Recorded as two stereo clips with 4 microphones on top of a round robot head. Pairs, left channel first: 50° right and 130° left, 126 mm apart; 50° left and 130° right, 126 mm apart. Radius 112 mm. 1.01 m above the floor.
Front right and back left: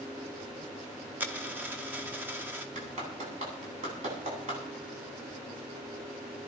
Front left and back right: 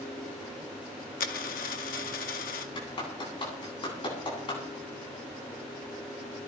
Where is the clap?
100° left, 10 m.